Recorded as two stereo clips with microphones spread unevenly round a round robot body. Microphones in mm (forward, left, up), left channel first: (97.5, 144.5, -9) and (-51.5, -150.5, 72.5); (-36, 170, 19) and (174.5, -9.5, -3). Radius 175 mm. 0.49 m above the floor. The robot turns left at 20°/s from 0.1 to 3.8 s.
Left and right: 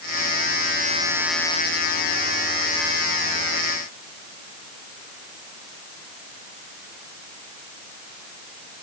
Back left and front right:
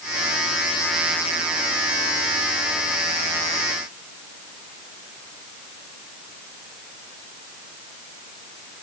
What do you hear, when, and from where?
Only background noise.